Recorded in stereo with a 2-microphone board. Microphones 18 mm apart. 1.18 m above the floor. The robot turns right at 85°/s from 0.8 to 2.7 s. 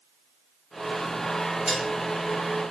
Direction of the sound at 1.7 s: 70° right (ahead or behind).